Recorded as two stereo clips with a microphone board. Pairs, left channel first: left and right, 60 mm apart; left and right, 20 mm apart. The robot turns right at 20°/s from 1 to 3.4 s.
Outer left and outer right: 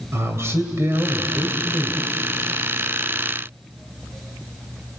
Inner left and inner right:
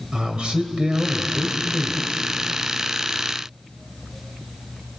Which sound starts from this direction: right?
A man speaking, at 0.1 s.